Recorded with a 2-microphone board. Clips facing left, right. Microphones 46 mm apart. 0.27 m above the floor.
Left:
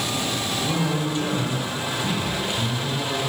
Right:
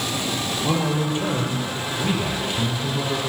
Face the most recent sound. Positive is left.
turn(degrees=-20)  # may be behind; listen again after turning